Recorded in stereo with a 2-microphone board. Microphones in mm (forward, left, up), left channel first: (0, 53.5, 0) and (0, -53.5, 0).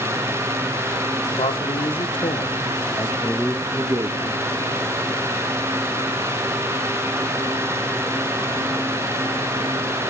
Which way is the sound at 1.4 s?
65° left (ahead or behind).